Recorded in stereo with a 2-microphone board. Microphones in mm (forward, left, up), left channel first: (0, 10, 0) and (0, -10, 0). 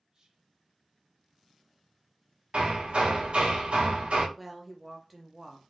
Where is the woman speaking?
10° right (ahead or behind), 0.8 m.